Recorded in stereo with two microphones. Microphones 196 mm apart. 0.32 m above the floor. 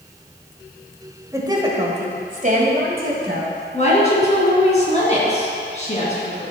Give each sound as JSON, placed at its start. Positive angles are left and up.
{"t": 1.3, "sound": "a woman speaking", "side_deg": -15, "distance_m": 1.3}
{"t": 3.7, "sound": "a woman speaking", "side_deg": 35, "distance_m": 3.0}